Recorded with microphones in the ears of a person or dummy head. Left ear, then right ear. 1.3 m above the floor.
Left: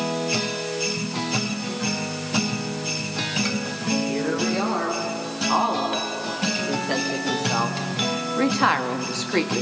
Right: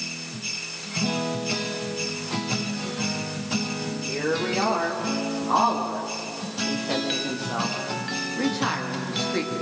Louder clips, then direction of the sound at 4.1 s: Left 1 dB; 20° right (ahead or behind).